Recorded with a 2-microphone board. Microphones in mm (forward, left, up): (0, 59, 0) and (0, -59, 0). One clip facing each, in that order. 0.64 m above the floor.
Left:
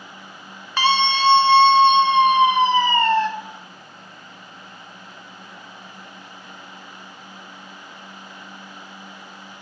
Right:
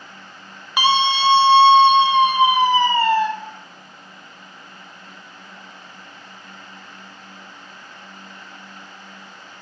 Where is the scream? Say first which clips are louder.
Right 1 dB; 15° right (ahead or behind), 0.7 m; by 3.3 s 10° right (ahead or behind), 1.9 m.